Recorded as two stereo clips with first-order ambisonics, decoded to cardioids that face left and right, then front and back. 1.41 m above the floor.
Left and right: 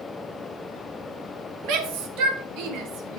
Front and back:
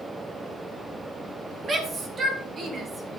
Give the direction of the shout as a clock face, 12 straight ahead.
4 o'clock.